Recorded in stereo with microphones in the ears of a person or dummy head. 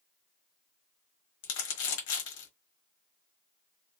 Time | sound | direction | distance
1.4 | crumpling | 60° left (ahead or behind) | 1.2 m